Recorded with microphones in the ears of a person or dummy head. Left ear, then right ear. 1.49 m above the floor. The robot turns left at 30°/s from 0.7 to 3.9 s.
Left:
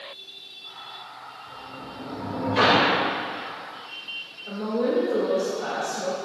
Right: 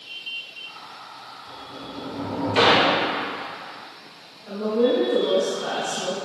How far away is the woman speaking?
About 2 m.